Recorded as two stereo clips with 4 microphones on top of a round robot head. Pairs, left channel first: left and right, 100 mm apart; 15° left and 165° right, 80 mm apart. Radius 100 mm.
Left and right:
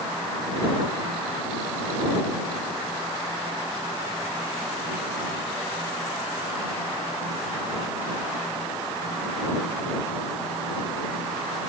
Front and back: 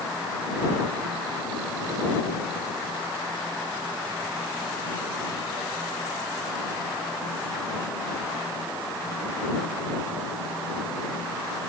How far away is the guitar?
I don't hear a guitar.